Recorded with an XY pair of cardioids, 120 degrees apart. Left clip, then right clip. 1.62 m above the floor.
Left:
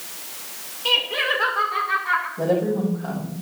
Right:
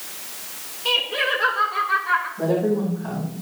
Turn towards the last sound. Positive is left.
turn(degrees=60)